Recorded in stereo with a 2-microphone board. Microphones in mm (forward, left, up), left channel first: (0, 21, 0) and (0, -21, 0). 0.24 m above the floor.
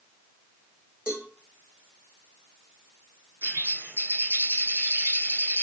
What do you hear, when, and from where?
1.1 s a cowbell: 20° right (ahead or behind), 3 m
3.4 s a bird: 60° right (ahead or behind), 2 m